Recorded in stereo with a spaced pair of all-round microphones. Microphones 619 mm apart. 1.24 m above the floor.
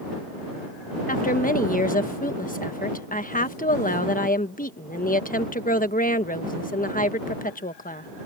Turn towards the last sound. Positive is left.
turn(degrees=15)  # may be behind; listen again after turning